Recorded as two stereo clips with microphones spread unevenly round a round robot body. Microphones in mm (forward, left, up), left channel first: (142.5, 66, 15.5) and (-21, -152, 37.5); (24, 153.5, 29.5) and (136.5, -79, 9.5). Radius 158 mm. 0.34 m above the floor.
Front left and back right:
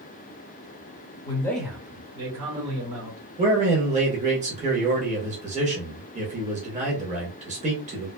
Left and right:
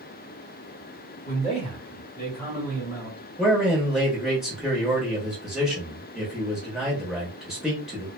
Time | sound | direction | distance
1.2 | a man speaking | 75° left | 1.1 m
3.4 | a man speaking | 140° right | 0.8 m